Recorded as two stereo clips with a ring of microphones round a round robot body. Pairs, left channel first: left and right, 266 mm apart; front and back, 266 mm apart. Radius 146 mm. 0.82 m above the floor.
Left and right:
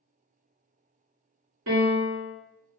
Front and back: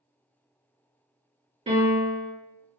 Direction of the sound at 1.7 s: 110° right.